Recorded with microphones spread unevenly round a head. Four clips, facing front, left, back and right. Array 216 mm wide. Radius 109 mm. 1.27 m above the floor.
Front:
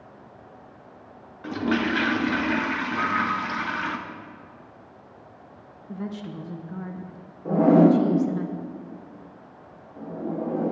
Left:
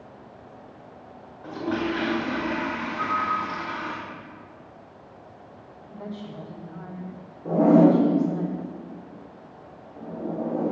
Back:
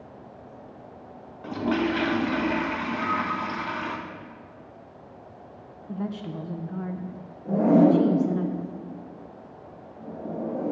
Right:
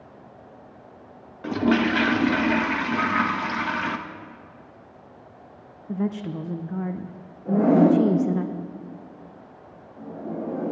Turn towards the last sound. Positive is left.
turn(degrees=35)